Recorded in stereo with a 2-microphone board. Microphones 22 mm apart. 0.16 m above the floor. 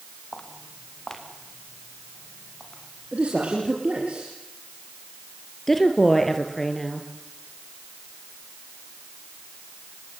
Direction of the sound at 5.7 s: 20° left (ahead or behind).